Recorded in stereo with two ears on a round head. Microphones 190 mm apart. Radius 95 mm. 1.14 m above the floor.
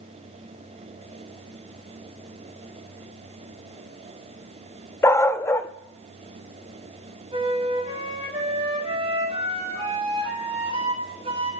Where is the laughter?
I don't hear laughter.